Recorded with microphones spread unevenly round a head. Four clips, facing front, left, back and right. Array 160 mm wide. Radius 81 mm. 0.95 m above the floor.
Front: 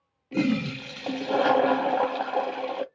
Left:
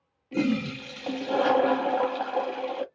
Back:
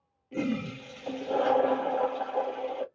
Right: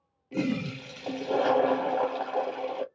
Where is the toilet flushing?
Straight ahead, 0.8 m.